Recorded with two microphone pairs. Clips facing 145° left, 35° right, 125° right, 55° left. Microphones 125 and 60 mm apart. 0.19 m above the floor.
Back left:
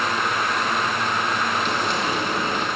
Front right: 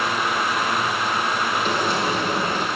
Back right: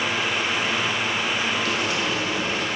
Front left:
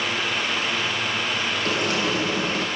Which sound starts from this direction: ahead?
Frying, at 1.6 s.